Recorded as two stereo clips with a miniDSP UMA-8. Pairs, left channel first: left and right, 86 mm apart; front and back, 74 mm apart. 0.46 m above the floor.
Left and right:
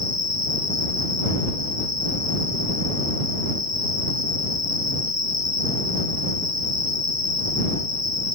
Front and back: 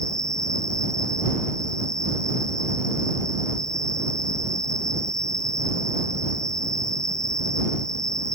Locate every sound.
0.0 s an insect: 80° right